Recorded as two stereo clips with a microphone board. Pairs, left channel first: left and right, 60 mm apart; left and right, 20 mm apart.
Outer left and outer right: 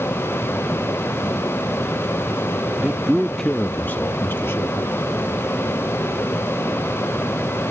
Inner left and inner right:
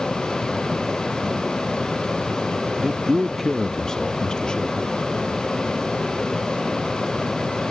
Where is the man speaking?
20° right (ahead or behind); by 5.0 s 50° left (ahead or behind).